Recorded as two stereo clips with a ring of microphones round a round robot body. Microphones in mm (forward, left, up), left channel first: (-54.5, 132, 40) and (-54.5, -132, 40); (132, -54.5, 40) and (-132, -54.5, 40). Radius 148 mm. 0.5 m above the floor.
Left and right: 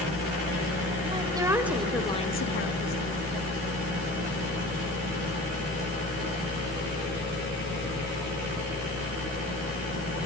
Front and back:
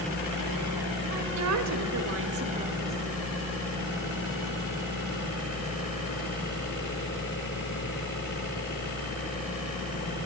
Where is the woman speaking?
160° right, 2.5 m; by 3.0 s 80° left, 1.4 m.